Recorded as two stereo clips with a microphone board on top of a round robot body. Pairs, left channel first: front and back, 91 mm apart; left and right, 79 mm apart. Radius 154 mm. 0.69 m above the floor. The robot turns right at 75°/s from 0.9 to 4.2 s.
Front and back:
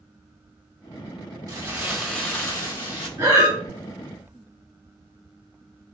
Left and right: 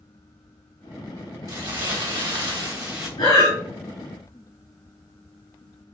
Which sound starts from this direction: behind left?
Breathing, at 3.2 s.